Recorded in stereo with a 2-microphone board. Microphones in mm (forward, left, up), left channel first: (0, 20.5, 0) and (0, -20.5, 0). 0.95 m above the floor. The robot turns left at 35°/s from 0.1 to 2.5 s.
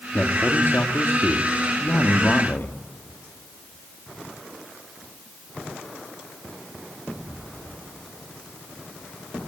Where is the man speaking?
140° left, 2 m; by 2.8 s 55° left, 2 m.